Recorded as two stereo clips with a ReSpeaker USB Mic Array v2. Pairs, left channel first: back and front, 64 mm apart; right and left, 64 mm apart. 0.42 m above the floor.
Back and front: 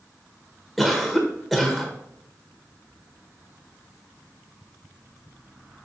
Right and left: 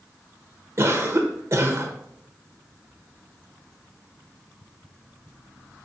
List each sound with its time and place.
0.8 s a cough: 90° left, 1.1 m